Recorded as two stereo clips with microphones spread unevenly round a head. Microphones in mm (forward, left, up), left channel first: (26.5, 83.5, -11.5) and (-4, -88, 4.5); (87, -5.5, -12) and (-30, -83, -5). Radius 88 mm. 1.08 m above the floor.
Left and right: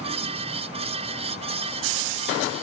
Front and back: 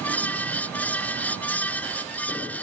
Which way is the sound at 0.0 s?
45° right.